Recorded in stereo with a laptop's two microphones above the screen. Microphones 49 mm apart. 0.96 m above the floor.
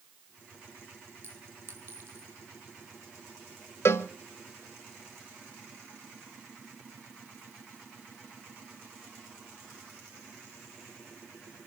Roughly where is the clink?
Right.